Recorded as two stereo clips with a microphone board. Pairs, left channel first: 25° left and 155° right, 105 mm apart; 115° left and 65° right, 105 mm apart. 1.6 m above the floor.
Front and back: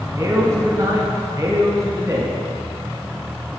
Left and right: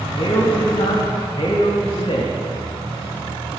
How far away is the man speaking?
About 1.7 m.